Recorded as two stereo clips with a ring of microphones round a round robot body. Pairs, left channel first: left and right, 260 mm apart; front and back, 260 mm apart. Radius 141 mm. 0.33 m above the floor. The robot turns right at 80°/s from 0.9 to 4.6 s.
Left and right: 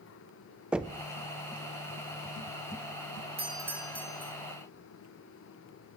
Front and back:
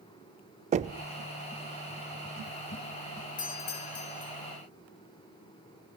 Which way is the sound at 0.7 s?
170° right.